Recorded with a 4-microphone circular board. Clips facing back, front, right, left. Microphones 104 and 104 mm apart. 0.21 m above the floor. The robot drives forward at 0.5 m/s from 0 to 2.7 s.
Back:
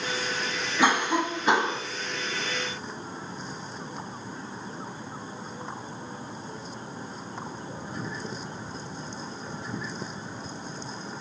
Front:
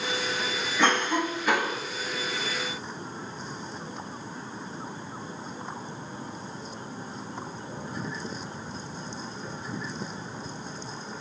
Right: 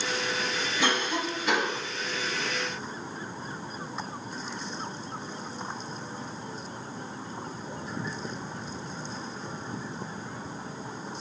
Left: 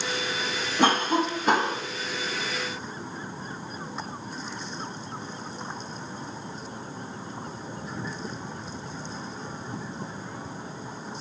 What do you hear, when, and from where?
0.8 s a cough: 100° left, 1.3 m; by 1.8 s 125° left, 1.5 m